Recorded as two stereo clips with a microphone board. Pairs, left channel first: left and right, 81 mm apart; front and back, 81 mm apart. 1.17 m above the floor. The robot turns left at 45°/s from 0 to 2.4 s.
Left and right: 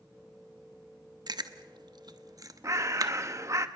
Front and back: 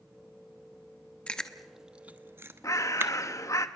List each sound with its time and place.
1.3 s chewing: 70° right, 0.9 m; by 3.1 s 125° right, 0.9 m
2.6 s a bird: 40° right, 1.0 m